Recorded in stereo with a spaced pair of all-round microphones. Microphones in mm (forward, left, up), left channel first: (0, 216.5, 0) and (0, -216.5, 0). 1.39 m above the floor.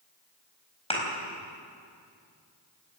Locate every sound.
0.9 s a thud: 15° left (ahead or behind), 4.5 m